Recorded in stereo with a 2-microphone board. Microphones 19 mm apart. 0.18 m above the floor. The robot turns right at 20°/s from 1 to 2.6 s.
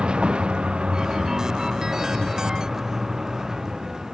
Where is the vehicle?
55° right (ahead or behind); by 4.2 s 30° right (ahead or behind).